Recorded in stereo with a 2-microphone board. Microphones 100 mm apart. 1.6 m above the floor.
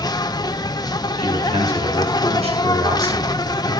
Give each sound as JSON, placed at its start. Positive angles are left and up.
{"t": 0.0, "sound": "an insect", "side_deg": 40, "distance_m": 0.9}
{"t": 1.2, "sound": "a man speaking", "side_deg": -75, "distance_m": 7.0}